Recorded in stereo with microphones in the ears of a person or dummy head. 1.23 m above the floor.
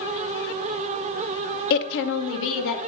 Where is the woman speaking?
55° left (ahead or behind), 0.5 m; by 2.8 s 70° left (ahead or behind), 1.4 m.